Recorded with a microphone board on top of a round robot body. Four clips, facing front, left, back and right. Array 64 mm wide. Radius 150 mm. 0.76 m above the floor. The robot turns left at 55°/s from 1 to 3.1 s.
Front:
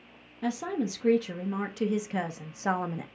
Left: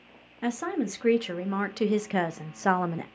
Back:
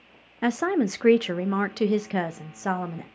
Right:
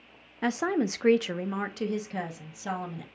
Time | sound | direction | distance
0.4 | a woman speaking | 170° right | 0.6 m